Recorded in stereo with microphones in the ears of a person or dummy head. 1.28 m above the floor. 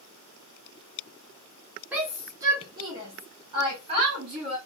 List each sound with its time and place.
1.9 s a shout: 10° right (ahead or behind), 0.7 m; by 4.6 s 35° right (ahead or behind), 2.5 m